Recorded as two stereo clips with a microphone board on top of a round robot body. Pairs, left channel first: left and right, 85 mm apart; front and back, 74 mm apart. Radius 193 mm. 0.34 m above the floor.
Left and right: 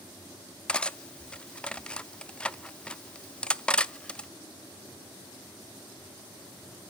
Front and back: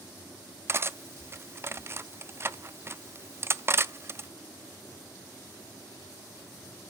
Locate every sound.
0.7 s cutlery clinking: 160° left, 0.7 m